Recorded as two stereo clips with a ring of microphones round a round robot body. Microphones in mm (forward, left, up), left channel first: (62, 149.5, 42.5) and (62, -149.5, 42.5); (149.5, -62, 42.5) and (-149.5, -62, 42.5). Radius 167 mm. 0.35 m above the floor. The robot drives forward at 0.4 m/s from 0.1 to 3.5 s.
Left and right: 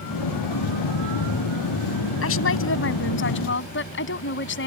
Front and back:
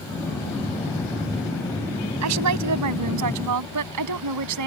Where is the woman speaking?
140° left; by 4.7 s 145° left.